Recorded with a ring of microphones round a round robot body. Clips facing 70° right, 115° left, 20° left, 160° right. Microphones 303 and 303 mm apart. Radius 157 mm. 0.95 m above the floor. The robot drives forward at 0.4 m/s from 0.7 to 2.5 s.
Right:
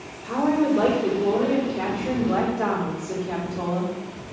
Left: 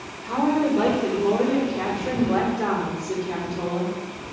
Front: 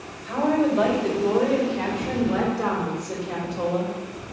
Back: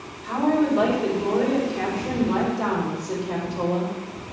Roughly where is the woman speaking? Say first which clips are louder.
Right 1 dB, back 1 dB; behind.